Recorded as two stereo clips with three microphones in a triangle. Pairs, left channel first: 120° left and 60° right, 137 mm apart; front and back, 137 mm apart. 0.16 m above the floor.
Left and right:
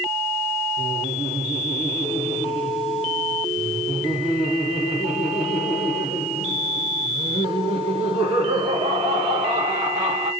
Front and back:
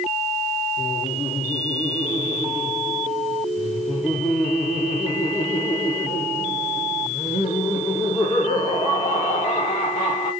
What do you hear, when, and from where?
0.8 s laughter: 15° right, 2.5 m